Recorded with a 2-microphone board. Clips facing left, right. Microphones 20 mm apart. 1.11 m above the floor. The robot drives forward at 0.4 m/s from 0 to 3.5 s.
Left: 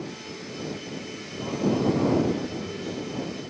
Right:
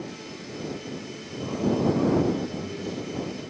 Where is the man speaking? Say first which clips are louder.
Left 1 dB; 25° left (ahead or behind), 0.9 m; by 3.0 s 15° left (ahead or behind), 1.5 m.